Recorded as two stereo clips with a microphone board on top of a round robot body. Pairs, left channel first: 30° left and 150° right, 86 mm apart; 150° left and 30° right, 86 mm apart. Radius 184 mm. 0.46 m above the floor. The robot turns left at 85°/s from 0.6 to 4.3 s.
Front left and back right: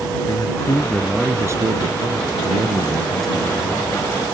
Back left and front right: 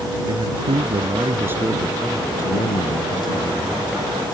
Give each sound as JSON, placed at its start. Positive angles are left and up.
{"t": 0.2, "sound": "a man speaking", "azimuth_deg": -15}